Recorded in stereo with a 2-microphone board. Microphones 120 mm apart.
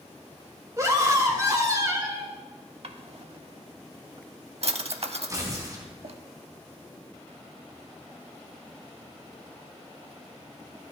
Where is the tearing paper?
35° right (ahead or behind), 3 m.